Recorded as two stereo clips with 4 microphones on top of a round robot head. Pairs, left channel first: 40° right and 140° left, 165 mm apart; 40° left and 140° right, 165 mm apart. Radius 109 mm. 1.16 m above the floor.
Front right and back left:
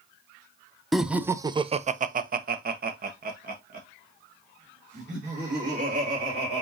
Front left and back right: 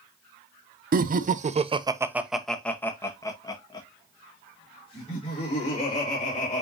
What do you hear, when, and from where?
0.9 s laughter: 130° right, 0.7 m; by 6.6 s 95° left, 3 m